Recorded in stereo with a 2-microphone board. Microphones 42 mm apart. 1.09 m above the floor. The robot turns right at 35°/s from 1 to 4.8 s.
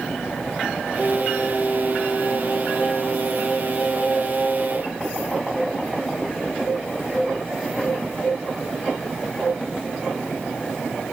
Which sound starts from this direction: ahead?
Singing, at 1.0 s.